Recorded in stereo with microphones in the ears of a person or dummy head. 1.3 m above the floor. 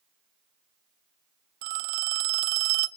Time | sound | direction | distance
1.6 | a phone ringing | 55° right (ahead or behind) | 0.8 m